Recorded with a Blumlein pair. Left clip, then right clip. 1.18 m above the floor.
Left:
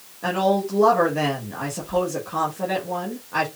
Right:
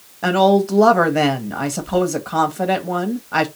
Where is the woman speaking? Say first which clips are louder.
Right 6 dB; 60° right, 1.5 m.